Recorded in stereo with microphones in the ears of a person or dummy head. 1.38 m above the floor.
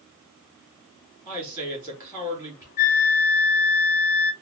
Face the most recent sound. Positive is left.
turn(degrees=50)  # may be behind; listen again after turning